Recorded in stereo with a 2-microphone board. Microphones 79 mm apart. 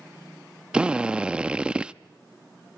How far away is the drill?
About 0.6 m.